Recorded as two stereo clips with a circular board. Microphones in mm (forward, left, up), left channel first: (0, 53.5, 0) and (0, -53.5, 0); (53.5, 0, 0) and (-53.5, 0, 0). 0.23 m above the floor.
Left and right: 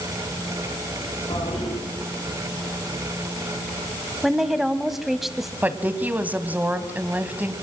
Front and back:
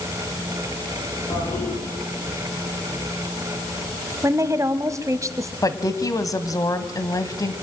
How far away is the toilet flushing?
About 10 m.